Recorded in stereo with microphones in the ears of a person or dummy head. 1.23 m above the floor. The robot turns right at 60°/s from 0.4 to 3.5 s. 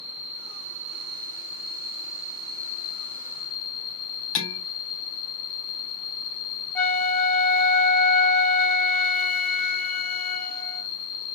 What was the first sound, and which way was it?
An insect, 130° right.